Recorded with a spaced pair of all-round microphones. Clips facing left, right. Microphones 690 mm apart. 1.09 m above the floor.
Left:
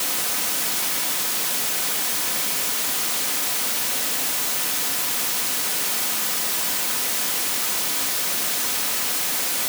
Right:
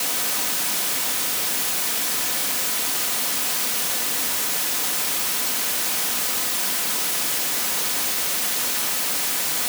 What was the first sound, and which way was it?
Only background noise.